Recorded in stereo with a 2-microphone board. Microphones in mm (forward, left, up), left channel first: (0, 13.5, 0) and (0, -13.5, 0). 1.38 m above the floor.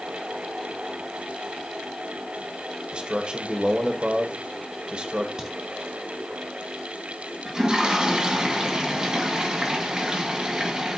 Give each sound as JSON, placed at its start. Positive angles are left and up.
{"t": 2.9, "sound": "a man speaking", "side_deg": -40, "distance_m": 1.1}
{"t": 5.4, "sound": "a crack", "side_deg": -25, "distance_m": 2.5}
{"t": 7.5, "sound": "a toilet flushing", "side_deg": -30, "distance_m": 1.7}